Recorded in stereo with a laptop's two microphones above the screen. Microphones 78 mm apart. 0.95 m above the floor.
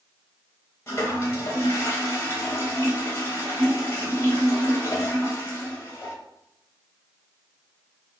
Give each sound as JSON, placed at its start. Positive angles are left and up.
{"t": 0.9, "sound": "a toilet flushing", "side_deg": 30, "distance_m": 1.5}